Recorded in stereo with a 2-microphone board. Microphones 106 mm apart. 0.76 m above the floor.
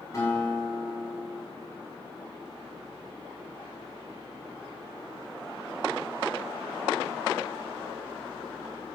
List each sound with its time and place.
0.1 s a guitar: 35° left (ahead or behind), 6.5 m